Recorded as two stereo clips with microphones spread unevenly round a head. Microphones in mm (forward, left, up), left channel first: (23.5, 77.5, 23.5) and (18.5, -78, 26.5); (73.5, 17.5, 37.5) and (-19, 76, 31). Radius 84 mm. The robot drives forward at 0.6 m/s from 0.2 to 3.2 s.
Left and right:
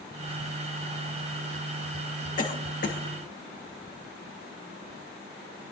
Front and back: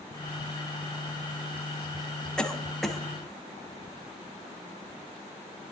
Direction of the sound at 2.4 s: 50° left.